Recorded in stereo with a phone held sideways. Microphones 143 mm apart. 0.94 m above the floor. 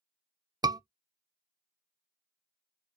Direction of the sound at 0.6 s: 30° right (ahead or behind).